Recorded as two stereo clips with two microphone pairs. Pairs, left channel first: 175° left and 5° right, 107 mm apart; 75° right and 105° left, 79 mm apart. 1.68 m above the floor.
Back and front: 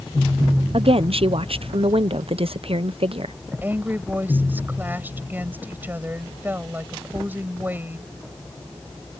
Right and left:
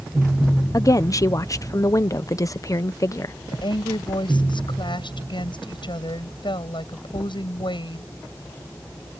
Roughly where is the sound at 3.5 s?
Right.